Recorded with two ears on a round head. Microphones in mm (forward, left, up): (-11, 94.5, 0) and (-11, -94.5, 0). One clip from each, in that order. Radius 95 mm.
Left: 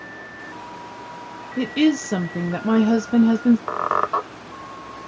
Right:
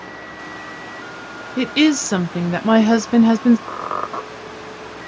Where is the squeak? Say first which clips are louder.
Left 4 dB; 30° left (ahead or behind), 1.0 m.